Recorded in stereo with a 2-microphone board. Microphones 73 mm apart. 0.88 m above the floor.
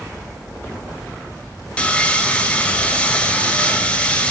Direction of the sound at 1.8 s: 15° left (ahead or behind).